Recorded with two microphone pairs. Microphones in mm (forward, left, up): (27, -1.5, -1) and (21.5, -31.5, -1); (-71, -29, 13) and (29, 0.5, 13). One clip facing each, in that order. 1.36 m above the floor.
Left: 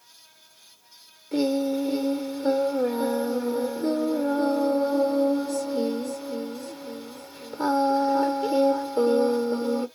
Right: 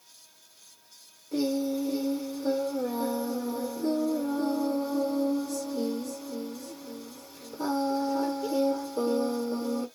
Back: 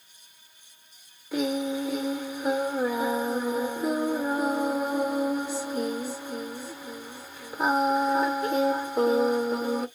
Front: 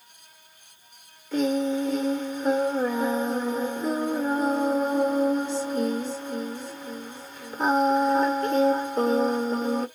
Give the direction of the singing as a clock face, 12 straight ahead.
8 o'clock.